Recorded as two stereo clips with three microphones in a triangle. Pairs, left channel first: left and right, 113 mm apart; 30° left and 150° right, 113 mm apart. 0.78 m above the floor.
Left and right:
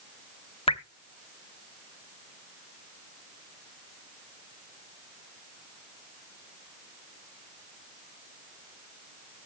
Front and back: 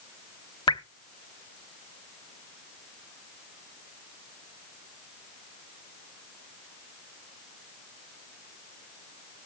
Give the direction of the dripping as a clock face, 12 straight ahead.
10 o'clock.